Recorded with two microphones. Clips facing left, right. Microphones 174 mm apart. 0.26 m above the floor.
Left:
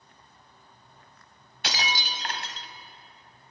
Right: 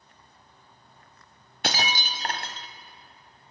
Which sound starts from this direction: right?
Breaking glass, at 1.6 s.